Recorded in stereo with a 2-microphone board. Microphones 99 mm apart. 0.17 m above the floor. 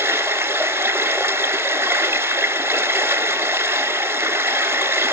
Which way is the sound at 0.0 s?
25° right (ahead or behind).